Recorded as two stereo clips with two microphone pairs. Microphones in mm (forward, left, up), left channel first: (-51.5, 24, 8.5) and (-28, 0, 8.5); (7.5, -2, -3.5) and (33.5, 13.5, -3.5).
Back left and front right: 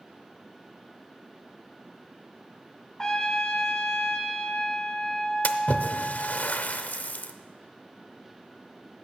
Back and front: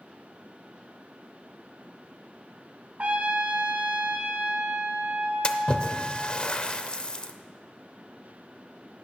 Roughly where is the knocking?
No knocking in this recording.